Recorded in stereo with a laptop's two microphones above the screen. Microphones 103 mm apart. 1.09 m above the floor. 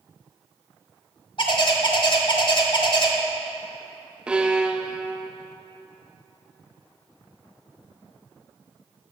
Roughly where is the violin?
Centre.